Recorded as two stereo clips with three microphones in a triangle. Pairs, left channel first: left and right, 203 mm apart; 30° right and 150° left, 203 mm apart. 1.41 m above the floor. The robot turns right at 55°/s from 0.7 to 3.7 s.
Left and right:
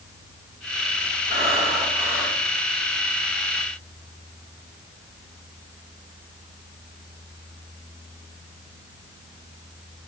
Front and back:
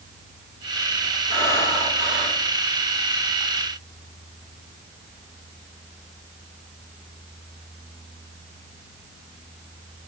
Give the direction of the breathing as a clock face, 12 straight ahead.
2 o'clock.